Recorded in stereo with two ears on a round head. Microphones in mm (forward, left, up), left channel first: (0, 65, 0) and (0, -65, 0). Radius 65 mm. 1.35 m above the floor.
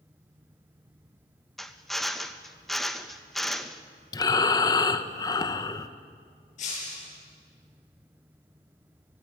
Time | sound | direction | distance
1.6 | a drill | centre (ahead or behind) | 1.0 m
4.1 | breathing | 25° left (ahead or behind) | 0.9 m
6.6 | breaking glass | 55° left (ahead or behind) | 8.5 m